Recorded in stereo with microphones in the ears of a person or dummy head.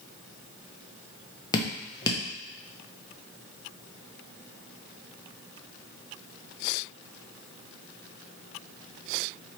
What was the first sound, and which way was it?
Dripping, 20° left (ahead or behind).